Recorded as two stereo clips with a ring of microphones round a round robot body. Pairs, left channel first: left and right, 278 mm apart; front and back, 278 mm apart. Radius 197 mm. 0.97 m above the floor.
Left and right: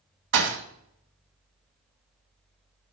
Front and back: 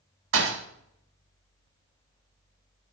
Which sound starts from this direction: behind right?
A thud, at 0.3 s.